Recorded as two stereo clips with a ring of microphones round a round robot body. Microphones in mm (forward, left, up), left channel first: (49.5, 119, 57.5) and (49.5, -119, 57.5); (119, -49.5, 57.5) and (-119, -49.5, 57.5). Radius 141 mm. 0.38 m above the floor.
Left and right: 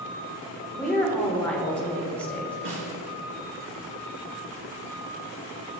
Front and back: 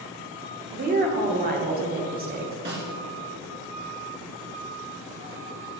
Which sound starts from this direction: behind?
A woman speaking, at 0.7 s.